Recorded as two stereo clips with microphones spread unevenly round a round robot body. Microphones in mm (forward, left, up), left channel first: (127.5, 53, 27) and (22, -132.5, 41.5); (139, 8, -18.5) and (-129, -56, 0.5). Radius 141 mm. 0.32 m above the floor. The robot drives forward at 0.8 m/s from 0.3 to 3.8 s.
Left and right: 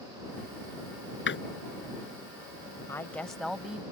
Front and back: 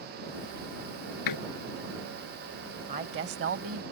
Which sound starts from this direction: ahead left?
A door slam, at 1.3 s.